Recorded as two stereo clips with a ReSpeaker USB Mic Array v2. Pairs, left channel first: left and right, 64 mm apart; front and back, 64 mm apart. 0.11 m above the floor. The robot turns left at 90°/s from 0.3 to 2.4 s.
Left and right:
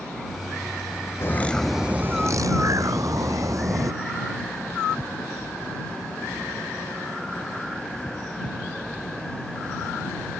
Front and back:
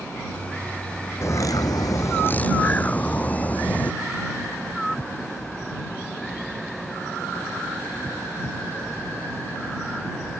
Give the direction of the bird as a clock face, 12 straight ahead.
11 o'clock.